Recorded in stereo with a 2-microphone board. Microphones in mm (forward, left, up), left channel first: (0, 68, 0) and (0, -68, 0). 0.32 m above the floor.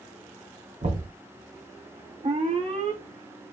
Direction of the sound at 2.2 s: 50° right (ahead or behind).